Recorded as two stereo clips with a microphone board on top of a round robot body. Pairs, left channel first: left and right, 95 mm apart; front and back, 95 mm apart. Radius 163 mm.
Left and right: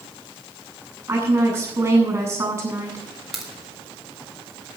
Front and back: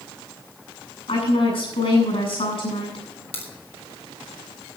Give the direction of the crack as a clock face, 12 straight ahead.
12 o'clock.